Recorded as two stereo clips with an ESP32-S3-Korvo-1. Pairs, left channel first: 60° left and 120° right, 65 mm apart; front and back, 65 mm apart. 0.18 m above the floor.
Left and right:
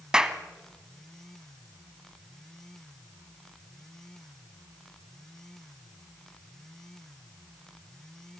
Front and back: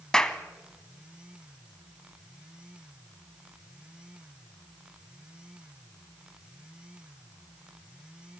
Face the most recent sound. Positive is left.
turn(degrees=-65)